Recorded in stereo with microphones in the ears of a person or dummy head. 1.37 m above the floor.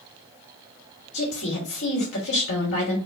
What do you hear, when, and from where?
1.1 s a woman speaking: 60° left (ahead or behind), 1.6 m